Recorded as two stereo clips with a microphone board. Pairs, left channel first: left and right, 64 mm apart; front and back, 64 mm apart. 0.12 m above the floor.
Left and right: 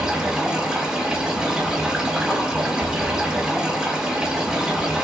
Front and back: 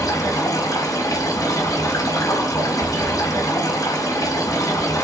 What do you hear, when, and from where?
0.0 s running water: 10° right, 4.5 m